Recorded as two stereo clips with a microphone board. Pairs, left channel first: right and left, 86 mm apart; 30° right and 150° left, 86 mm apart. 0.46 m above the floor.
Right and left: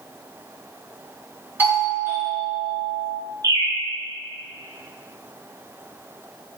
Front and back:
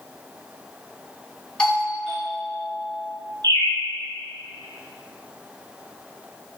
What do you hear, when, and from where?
1.6 s a doorbell: 40° left, 1.4 m
3.4 s a bird: 130° left, 1.3 m